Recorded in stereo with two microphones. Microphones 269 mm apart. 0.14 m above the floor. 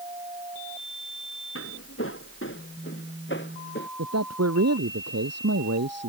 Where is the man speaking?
70° right (ahead or behind).